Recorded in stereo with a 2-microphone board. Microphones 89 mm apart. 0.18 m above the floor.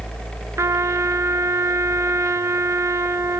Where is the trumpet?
35° right (ahead or behind), 1.0 m.